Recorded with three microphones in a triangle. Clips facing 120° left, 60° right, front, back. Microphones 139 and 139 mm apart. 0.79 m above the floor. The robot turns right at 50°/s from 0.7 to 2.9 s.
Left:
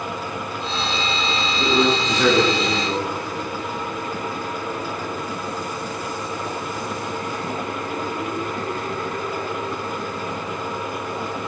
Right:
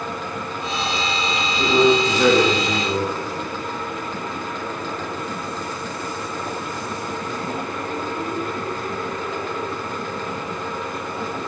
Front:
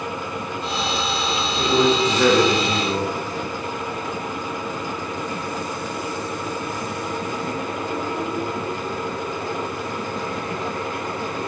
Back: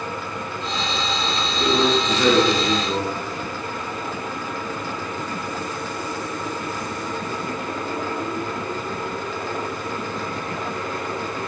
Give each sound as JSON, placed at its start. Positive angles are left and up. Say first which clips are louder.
{"t": 1.6, "sound": "a man speaking", "louder": "right 4 dB, front 2 dB", "azimuth_deg": -30, "distance_m": 4.0}